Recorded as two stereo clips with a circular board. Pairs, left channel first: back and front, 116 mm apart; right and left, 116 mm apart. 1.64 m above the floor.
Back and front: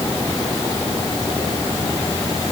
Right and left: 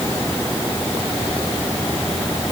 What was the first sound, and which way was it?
Only background noise.